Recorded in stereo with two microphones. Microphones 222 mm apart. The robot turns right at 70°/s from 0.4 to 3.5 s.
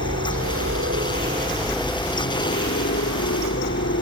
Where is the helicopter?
75° right (ahead or behind); by 4.0 s 70° left (ahead or behind).